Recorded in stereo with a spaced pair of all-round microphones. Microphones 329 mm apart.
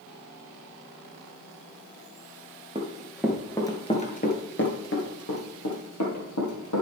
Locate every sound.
2.8 s running footsteps: 15° right (ahead or behind), 1.2 m; by 6.8 s 60° left (ahead or behind), 2.5 m